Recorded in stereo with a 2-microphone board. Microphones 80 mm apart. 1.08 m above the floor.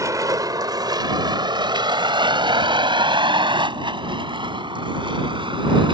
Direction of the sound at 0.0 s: 45° right (ahead or behind).